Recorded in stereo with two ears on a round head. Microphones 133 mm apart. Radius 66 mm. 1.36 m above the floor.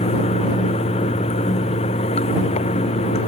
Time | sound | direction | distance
0.0 | running water | 45° left (ahead or behind) | ?